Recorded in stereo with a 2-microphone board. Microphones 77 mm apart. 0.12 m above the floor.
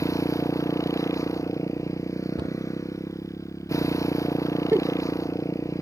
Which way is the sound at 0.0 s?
40° left (ahead or behind).